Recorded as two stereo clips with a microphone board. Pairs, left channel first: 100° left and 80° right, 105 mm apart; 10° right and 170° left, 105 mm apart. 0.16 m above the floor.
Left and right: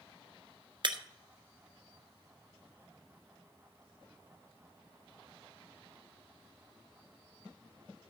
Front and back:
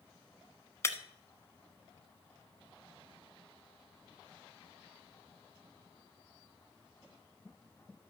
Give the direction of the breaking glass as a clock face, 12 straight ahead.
2 o'clock.